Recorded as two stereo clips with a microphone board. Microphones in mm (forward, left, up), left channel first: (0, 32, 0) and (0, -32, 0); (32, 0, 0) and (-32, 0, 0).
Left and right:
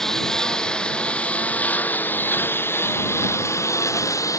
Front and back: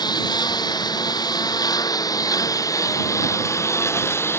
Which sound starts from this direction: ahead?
A lawn mower, at 0.0 s.